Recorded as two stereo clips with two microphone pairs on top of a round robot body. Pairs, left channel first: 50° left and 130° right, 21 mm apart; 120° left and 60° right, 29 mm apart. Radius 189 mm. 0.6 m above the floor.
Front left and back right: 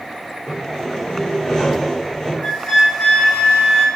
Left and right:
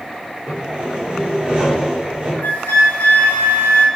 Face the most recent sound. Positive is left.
turn(degrees=100)